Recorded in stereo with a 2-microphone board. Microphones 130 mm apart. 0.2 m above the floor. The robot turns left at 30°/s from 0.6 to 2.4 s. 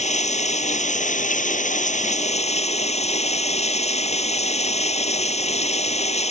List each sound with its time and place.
0.0 s running water: 115° left; by 6.3 s 60° left